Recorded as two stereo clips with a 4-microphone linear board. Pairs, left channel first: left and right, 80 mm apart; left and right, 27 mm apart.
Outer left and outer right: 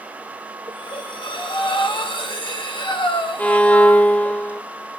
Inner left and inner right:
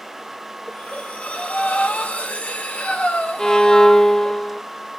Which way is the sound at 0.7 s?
80° left.